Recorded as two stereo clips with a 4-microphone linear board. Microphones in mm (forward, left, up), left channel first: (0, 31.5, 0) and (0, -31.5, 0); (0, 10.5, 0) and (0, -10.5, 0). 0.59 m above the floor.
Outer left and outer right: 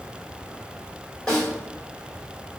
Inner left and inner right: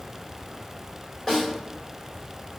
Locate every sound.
1.3 s a snare drum: 10° left (ahead or behind), 1.9 m